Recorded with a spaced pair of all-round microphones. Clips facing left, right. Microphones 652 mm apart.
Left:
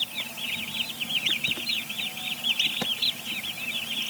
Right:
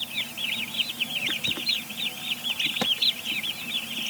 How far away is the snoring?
No snoring in this recording.